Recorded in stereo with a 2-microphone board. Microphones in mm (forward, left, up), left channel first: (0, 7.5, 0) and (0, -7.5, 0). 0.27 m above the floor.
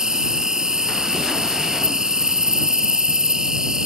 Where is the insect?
55° right (ahead or behind).